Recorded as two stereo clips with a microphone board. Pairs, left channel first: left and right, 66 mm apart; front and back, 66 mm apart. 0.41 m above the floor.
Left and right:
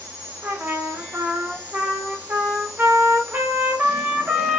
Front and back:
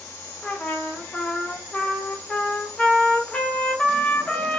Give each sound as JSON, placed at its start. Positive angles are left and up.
{"t": 0.4, "sound": "a trumpet", "azimuth_deg": -60, "distance_m": 0.5}